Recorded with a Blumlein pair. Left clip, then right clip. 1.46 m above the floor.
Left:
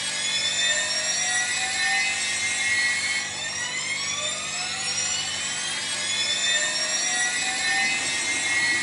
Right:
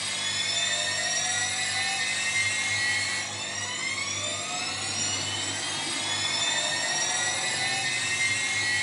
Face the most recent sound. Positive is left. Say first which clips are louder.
# left 3 dB
turn(degrees=35)